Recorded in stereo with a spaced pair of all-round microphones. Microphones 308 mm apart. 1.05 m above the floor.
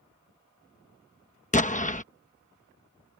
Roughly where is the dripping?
I don't hear dripping.